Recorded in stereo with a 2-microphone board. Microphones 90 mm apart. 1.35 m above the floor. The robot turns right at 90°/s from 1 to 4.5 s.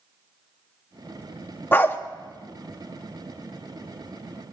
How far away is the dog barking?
About 0.8 m.